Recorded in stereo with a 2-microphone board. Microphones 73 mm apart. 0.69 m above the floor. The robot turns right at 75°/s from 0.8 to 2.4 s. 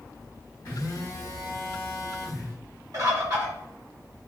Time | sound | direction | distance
0.7 | a phone buzzing | 115° left | 1.6 m
2.9 | a bird | 50° right (ahead or behind) | 1.5 m